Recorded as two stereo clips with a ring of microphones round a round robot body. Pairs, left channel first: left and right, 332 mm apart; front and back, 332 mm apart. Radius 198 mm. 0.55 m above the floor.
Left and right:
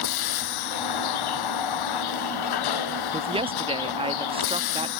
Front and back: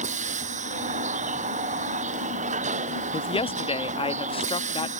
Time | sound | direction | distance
0.0 | a vehicle | 110° left | ?
3.1 | a woman speaking | 45° right | ?